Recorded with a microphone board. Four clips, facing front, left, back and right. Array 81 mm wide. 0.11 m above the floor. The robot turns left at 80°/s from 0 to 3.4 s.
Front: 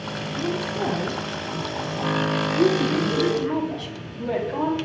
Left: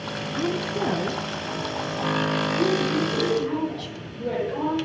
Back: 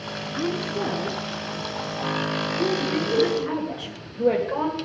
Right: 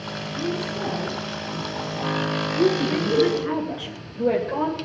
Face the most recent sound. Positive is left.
turn(degrees=-140)